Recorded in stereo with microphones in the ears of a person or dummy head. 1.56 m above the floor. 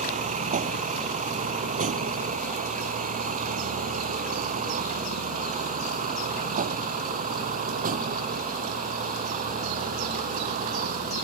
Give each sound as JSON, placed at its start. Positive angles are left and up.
{"t": 0.0, "sound": "a vehicle", "side_deg": -40}